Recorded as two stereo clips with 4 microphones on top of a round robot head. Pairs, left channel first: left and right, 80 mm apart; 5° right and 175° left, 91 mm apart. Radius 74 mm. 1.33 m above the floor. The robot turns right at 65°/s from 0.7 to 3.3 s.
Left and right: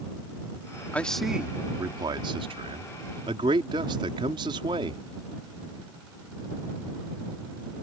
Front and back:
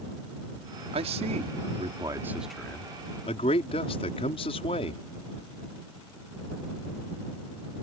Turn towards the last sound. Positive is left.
turn(degrees=-45)